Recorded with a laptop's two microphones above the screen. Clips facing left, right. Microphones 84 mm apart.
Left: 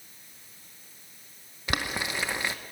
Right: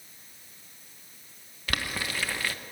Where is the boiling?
20° left (ahead or behind), 0.9 m.